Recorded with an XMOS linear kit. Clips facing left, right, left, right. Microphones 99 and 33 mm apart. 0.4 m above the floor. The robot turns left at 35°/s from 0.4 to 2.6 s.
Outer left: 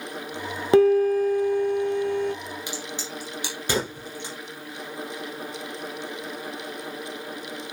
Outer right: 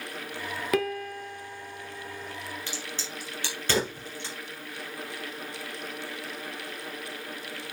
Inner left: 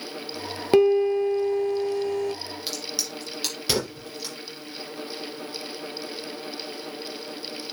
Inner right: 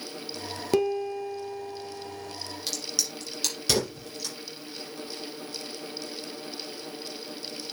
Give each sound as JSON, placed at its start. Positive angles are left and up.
{"t": 0.7, "sound": "a piano", "azimuth_deg": 150, "distance_m": 1.6}
{"t": 2.7, "sound": "a crack", "side_deg": 15, "distance_m": 3.0}